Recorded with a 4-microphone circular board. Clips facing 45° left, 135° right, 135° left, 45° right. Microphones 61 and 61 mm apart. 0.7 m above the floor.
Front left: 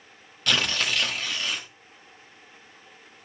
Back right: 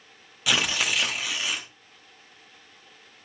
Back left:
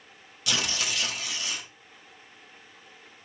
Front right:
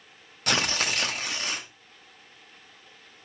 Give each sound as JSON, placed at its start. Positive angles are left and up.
{"t": 0.5, "sound": "tearing paper", "azimuth_deg": -55, "distance_m": 1.1}